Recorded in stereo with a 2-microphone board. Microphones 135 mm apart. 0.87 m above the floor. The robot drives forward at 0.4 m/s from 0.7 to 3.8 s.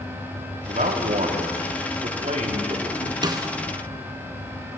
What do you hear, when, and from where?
0.7 s a man speaking: 75° right (ahead or behind), 1.4 m; by 3.1 s 50° right (ahead or behind), 1.8 m
3.2 s a snare drum: 30° right (ahead or behind), 0.6 m; by 3.5 s 25° right (ahead or behind), 0.7 m